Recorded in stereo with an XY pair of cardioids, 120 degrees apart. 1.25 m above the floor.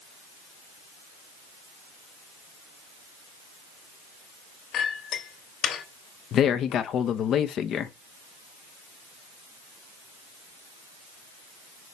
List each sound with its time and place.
4.7 s a clink: 60° left, 2.5 m
6.3 s a man speaking: 55° left, 1.0 m